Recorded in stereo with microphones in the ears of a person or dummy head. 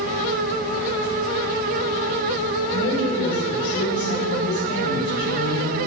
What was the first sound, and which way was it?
A woman speaking, 25° left (ahead or behind).